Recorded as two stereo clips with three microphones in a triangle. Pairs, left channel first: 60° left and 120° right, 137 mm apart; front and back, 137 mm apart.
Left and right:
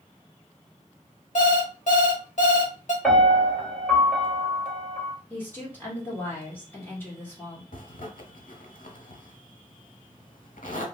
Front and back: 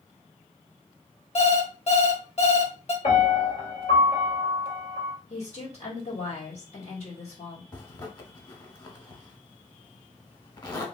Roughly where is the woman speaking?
Ahead.